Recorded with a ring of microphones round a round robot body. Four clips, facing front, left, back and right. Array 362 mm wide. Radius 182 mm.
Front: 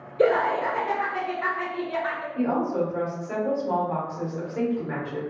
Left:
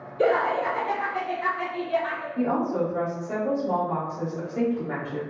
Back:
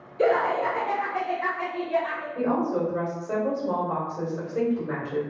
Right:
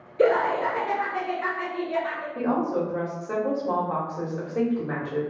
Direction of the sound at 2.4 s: 140° right.